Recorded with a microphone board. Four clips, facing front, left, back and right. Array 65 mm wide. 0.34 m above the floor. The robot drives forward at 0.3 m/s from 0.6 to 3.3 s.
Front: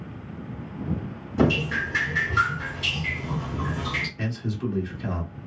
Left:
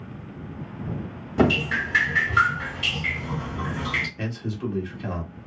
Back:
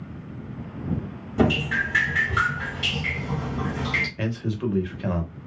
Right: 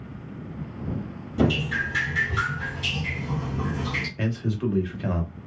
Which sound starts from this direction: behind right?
A man speaking, at 4.2 s.